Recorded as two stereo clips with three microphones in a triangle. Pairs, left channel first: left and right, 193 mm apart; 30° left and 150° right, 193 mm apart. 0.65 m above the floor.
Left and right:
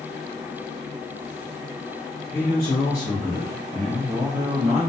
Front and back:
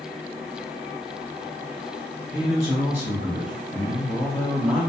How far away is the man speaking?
About 1.1 m.